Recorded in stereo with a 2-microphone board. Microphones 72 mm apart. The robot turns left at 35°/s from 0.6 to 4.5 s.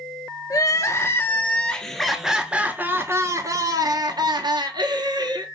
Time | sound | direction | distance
0.5 | crying | 50° left | 0.8 m